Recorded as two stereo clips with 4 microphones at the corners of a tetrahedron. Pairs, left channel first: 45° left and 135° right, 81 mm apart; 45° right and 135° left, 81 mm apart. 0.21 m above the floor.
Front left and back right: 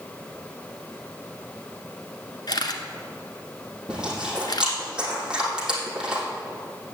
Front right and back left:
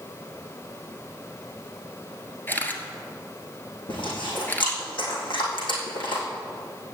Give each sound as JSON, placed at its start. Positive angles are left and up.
{"t": 2.5, "sound": "a camera shutter", "azimuth_deg": 20, "distance_m": 1.4}
{"t": 3.9, "sound": "chewing", "azimuth_deg": -55, "distance_m": 4.0}